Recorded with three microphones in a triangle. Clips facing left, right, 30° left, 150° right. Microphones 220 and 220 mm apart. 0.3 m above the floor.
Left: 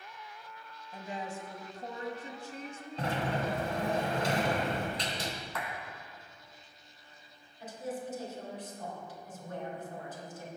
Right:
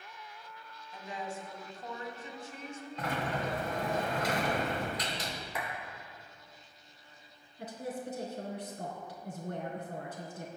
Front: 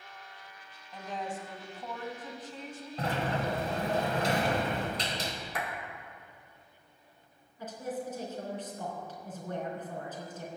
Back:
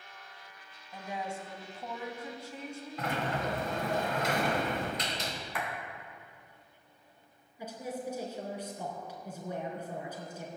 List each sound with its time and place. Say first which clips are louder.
0.9 s a woman speaking: left 1 dB, front 1 dB; 135° left, 1.6 m
3.0 s a sliding door: left 2 dB, front 2 dB; 55° left, 1.7 m
5.5 s a clap: right 3 dB, even; 15° right, 2.5 m
7.6 s a woman speaking: even, front 1 dB; 70° right, 3.5 m